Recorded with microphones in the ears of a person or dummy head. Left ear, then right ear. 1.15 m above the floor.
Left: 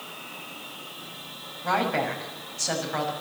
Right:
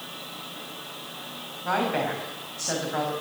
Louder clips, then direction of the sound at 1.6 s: Left 1 dB; 15° left (ahead or behind).